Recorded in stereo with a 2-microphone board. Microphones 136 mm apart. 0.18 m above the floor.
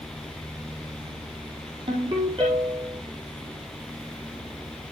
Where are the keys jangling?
No keys jangling in this recording.